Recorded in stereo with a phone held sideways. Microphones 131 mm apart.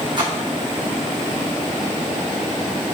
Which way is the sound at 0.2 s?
35° right (ahead or behind).